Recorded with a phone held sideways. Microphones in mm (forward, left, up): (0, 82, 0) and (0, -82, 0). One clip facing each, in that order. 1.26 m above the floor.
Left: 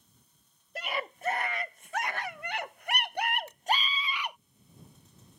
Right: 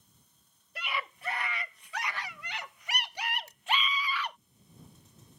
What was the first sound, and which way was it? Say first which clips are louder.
A scream: left 3 dB; 45° left (ahead or behind).